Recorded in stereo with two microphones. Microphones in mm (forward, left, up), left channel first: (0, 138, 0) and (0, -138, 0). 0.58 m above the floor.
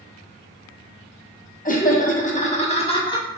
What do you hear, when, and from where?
1.6 s laughter: 30° left (ahead or behind), 0.9 m; by 3.3 s 15° left (ahead or behind), 0.9 m